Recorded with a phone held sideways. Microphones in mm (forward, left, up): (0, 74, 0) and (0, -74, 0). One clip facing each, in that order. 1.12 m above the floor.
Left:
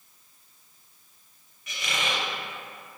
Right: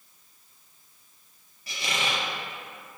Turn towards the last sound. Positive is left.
turn(degrees=-35)  # may be behind; listen again after turning